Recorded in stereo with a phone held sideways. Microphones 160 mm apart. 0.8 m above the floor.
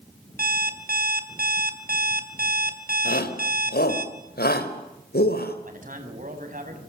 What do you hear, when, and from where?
0.4 s an alarm clock: 75° right (ahead or behind), 3.5 m
3.0 s a shout: 75° left (ahead or behind), 4.5 m
5.7 s a man speaking: 60° right (ahead or behind), 6.5 m